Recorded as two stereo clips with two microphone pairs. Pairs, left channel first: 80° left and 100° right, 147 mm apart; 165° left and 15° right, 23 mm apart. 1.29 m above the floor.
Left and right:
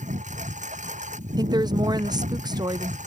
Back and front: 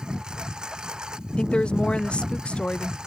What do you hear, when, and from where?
0.0 s a lawn mower: 65° right
1.4 s a woman speaking: 165° right